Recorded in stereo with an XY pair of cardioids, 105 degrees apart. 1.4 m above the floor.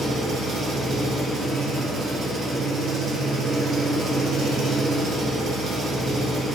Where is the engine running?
50° right, 0.7 m.